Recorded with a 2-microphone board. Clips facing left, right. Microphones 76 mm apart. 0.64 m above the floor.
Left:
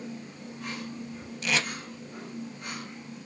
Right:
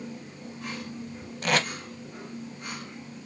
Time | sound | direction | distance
1.4 | tape being pulled | 50° right (ahead or behind) | 0.6 m